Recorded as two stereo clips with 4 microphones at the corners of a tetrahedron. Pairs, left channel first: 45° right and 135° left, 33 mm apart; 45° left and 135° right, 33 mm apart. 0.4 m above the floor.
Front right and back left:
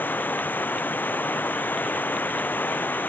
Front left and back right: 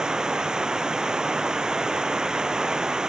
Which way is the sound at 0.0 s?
70° right.